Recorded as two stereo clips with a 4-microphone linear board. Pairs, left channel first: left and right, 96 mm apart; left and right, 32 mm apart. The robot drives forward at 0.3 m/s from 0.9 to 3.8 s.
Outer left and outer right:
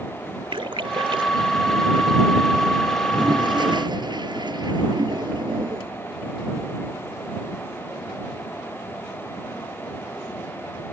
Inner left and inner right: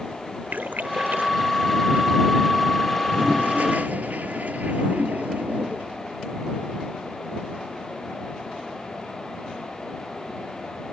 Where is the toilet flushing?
60° right (ahead or behind); by 5.8 s 55° right (ahead or behind).